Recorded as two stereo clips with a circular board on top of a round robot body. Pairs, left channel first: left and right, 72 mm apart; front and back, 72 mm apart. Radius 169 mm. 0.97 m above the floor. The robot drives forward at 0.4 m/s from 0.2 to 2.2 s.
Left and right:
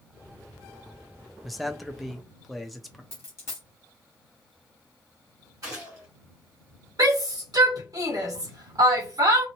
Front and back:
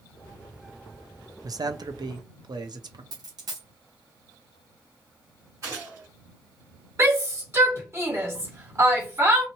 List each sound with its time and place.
1.4 s a man speaking: straight behind, 0.5 m
3.1 s a dropped coin: 145° left, 0.7 m
5.6 s a gunshot: 135° right, 1.8 m
7.0 s a shout: 125° right, 1.5 m